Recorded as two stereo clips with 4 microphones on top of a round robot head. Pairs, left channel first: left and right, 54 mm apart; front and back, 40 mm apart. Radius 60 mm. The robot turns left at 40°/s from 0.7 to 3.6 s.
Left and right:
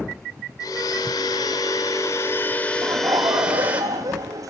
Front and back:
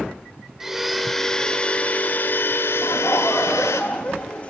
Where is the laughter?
40° right, 2.5 m; by 4.5 s 70° right, 2.5 m.